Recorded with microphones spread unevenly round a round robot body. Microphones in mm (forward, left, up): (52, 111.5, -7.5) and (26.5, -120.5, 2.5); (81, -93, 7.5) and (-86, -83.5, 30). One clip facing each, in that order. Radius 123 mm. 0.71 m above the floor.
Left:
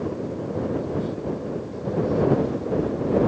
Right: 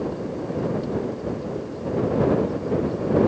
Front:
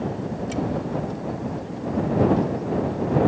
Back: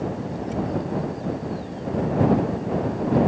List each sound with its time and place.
Only background noise.